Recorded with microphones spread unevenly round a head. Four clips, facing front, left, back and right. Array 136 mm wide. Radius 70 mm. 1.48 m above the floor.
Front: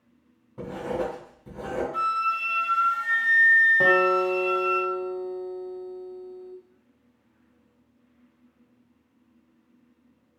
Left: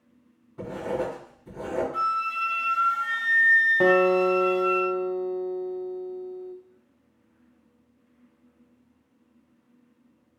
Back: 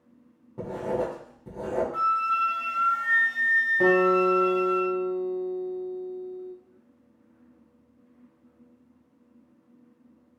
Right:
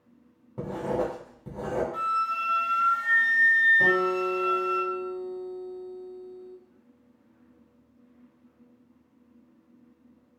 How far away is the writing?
About 2 m.